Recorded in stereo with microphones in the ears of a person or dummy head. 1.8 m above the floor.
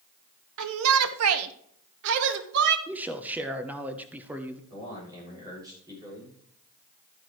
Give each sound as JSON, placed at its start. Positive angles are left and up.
{"t": 0.6, "sound": "a shout", "side_deg": -70, "distance_m": 0.8}
{"t": 2.9, "sound": "a man speaking", "side_deg": -10, "distance_m": 0.9}
{"t": 4.7, "sound": "a man speaking", "side_deg": -20, "distance_m": 6.5}